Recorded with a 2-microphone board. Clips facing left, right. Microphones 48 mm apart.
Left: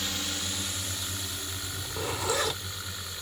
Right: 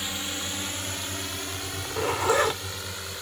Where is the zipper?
35° right (ahead or behind).